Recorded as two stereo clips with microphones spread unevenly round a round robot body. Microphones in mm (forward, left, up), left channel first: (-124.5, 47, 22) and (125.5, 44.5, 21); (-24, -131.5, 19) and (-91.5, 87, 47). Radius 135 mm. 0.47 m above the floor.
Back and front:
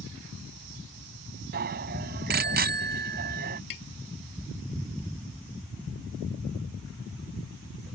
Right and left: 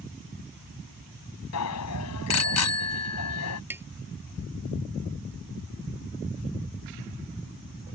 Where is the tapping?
175° right.